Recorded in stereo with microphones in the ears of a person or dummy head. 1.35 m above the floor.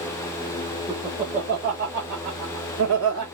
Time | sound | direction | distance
0.9 | laughter | 20° right (ahead or behind) | 1.4 m